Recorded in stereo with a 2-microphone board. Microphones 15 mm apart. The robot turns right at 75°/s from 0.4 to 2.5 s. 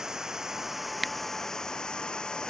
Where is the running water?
50° right; by 2.5 s 110° left.